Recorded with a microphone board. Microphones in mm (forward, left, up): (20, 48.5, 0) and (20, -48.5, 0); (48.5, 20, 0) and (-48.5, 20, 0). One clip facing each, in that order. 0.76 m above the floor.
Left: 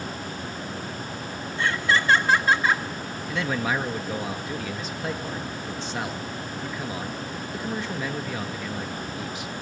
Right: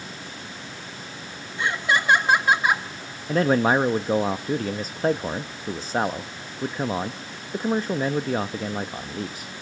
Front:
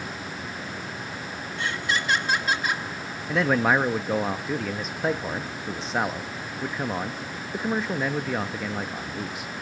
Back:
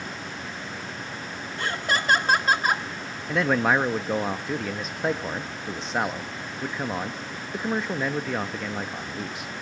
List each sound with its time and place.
1.6 s laughter: 155° right, 1.1 m
3.3 s a man speaking: 90° right, 0.5 m